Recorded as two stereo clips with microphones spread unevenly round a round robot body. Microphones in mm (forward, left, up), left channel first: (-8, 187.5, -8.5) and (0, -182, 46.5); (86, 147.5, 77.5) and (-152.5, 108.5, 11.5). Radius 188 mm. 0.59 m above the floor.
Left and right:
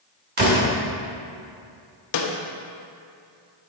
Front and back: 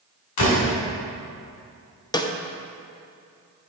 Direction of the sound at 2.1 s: 95° left.